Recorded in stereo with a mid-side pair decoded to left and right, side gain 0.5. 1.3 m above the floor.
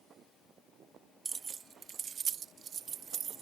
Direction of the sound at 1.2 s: 30° right.